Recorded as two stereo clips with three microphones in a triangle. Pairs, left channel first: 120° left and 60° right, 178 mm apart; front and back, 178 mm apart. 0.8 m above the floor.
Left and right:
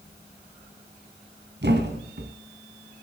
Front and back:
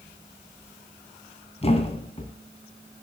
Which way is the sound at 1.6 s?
55° right.